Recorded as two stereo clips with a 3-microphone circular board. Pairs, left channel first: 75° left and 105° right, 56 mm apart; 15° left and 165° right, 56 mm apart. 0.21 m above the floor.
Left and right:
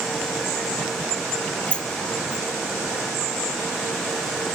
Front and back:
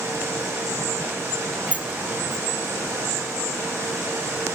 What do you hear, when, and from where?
1.7 s a sliding door: 140° left, 0.9 m